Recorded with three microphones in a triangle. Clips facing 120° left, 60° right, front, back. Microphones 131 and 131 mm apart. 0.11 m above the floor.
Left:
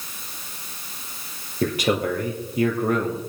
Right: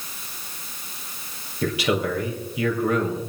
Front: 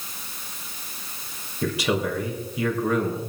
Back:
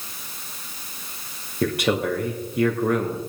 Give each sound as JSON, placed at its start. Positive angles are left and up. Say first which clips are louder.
{"t": 1.6, "sound": "a man speaking", "louder": "left 1 dB, back 2 dB", "azimuth_deg": 160, "distance_m": 3.0}